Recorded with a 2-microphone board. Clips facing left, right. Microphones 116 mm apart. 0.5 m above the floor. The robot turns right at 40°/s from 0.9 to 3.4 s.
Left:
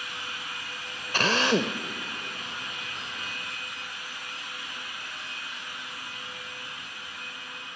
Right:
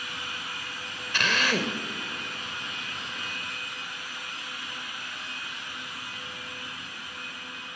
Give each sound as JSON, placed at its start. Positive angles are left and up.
{"t": 1.1, "sound": "a drill", "side_deg": 40, "distance_m": 0.9}